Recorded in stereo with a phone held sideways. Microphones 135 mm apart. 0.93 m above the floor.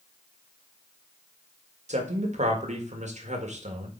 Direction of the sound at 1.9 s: 60° right (ahead or behind).